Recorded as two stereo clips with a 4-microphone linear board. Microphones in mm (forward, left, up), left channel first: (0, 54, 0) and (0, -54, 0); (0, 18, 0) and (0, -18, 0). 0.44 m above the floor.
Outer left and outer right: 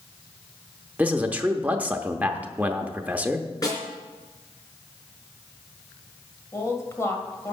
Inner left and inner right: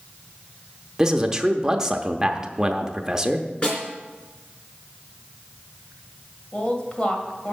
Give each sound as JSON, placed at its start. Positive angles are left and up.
{"t": 1.0, "sound": "a man speaking", "side_deg": -15, "distance_m": 0.8}
{"t": 3.6, "sound": "a snare drum", "side_deg": 35, "distance_m": 3.5}
{"t": 6.5, "sound": "a woman speaking", "side_deg": 25, "distance_m": 1.9}